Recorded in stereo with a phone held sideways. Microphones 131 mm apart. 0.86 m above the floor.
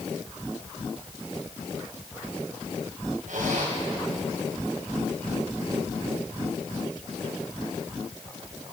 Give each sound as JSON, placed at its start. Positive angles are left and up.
{"t": 3.3, "sound": "a zipper", "side_deg": -80, "distance_m": 5.0}